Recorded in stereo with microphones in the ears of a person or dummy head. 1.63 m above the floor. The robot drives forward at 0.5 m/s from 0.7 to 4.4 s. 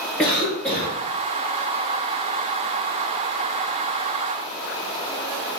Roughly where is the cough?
Centre.